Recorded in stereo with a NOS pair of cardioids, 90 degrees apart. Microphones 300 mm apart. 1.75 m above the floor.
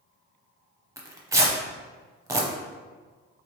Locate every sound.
1.0 s tearing paper: 10° right, 0.7 m